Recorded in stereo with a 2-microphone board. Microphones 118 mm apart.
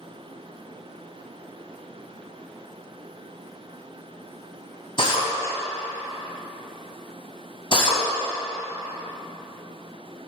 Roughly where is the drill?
Left.